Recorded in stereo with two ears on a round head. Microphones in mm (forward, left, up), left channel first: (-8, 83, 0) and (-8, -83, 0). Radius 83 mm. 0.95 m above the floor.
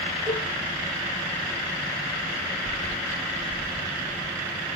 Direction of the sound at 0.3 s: 5° left (ahead or behind).